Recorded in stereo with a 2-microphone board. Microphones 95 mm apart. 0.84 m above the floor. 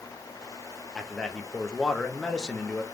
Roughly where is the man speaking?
Centre.